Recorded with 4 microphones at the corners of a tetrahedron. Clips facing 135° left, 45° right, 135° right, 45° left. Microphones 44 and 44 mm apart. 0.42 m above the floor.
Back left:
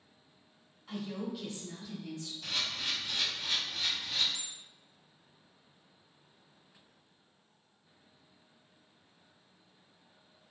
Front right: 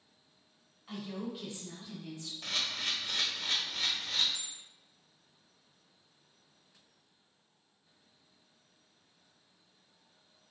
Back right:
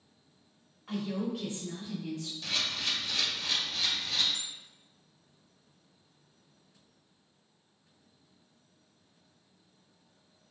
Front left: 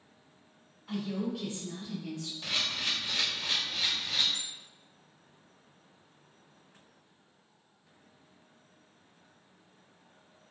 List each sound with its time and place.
0.9 s a woman speaking: 125° right, 1.7 m; by 2.3 s 55° right, 1.0 m
2.4 s a camera shutter: 20° right, 0.7 m
4.3 s a bell: straight behind, 1.2 m